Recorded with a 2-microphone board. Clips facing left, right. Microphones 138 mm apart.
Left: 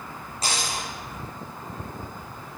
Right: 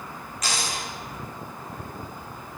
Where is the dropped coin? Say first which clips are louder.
Left 1 dB; 30° left (ahead or behind), 6.5 m.